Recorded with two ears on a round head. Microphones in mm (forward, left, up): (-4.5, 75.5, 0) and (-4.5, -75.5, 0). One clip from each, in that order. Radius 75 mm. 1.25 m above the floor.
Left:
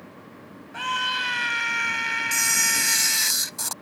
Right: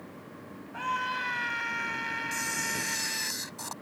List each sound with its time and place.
0.7 s a scream: 65° left (ahead or behind); by 3.3 s 50° left (ahead or behind)
2.3 s a camera shutter: 65° left (ahead or behind)